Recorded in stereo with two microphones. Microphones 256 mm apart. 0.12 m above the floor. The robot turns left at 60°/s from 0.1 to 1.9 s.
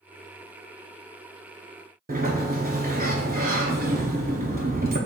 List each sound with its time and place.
2.1 s a sliding door: 35° right (ahead or behind), 0.7 m